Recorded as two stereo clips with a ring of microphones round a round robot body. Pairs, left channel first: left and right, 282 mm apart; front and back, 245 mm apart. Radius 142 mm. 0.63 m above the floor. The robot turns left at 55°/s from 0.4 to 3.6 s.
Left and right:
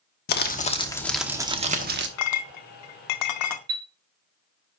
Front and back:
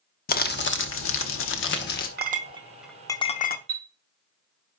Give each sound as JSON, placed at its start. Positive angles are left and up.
{"t": 0.3, "sound": "crumpling", "azimuth_deg": 40, "distance_m": 1.0}
{"t": 2.2, "sound": "a clink", "azimuth_deg": 130, "distance_m": 0.7}
{"t": 3.7, "sound": "a chime", "azimuth_deg": -145, "distance_m": 0.9}